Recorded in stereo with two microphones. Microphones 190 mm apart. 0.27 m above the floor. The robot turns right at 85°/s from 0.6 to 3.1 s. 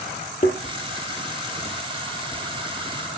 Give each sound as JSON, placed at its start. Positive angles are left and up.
{"t": 0.4, "sound": "a thud", "side_deg": 40, "distance_m": 3.5}